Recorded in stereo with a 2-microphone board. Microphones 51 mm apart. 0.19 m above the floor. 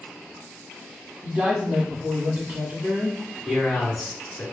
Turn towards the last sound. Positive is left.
turn(degrees=10)  # may be behind; listen again after turning